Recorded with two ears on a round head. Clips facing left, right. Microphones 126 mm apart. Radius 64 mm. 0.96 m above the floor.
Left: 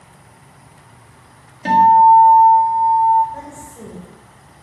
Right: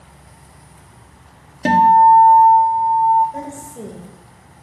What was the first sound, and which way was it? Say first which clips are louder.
A guitar: left 1 dB; 50° right (ahead or behind).